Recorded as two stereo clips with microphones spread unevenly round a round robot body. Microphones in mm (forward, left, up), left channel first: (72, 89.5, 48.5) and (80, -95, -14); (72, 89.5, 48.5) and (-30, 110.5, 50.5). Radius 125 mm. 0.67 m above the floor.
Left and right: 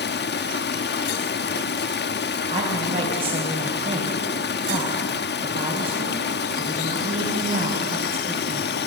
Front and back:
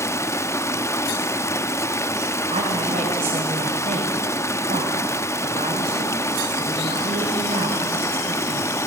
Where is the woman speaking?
150° right, 4.5 m.